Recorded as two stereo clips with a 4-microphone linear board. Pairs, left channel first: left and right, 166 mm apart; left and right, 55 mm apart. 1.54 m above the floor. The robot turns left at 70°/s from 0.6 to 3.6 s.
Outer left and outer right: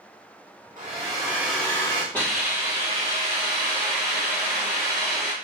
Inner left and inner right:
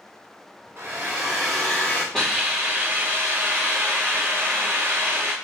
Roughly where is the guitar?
I don't hear a guitar.